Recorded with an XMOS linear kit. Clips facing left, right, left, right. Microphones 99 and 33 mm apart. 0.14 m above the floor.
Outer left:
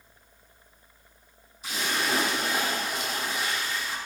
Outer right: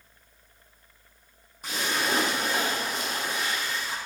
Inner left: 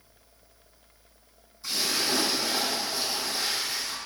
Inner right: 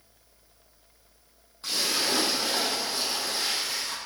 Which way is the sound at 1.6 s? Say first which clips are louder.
Outer right 1 dB, inner right 1 dB; 50° right (ahead or behind).